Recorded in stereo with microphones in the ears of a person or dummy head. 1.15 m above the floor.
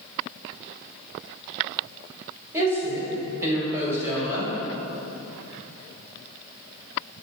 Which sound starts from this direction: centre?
A woman speaking, at 2.5 s.